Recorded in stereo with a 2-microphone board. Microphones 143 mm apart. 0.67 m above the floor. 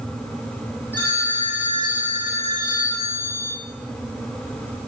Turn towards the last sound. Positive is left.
turn(degrees=15)  # may be behind; listen again after turning